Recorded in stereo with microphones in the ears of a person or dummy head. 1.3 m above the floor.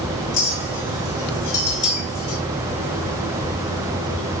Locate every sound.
0.3 s a clink: 50° left (ahead or behind), 2.5 m